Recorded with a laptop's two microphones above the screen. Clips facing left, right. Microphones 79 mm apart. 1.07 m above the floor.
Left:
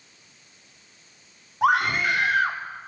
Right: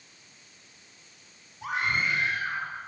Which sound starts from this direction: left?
A scream, at 1.6 s.